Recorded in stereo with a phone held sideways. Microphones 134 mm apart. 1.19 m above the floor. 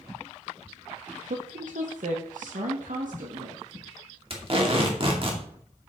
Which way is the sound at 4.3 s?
45° right (ahead or behind).